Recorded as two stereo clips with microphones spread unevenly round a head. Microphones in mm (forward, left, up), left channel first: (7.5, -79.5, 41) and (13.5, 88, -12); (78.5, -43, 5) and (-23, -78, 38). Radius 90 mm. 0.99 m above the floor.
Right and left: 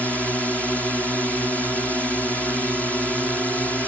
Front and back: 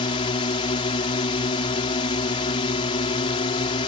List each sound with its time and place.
0.0 s a drone: straight ahead